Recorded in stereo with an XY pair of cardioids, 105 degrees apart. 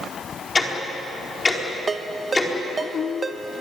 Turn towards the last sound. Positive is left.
turn(degrees=-30)